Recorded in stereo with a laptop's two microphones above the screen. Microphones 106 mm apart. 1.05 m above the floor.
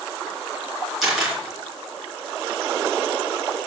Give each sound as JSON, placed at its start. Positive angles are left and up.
{"t": 1.0, "sound": "a camera shutter", "side_deg": 0, "distance_m": 3.5}